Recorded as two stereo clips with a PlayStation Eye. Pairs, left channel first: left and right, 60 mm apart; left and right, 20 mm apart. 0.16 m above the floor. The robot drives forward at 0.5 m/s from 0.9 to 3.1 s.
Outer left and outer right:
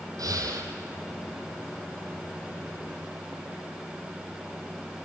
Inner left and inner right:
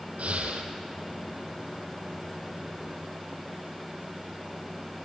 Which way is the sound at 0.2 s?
75° right (ahead or behind).